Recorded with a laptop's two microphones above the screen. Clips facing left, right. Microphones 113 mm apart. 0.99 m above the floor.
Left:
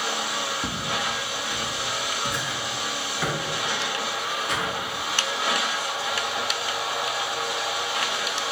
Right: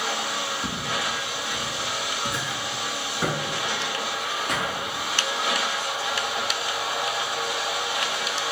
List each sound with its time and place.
0.6 s footsteps: 30° left (ahead or behind), 1.4 m; by 4.7 s 50° right (ahead or behind), 1.6 m